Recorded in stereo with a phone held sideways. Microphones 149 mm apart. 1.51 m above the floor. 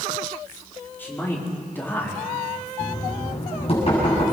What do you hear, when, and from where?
1.0 s a man speaking: 15° left (ahead or behind), 5 m
2.8 s knocking: 40° left (ahead or behind), 7.5 m